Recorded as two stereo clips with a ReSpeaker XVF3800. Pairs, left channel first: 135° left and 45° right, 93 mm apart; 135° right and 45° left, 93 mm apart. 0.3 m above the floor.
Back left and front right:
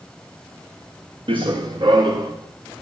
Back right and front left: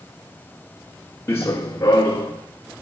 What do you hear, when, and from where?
1.3 s running footsteps: 70° right, 1.3 m; by 2.3 s 85° right, 1.9 m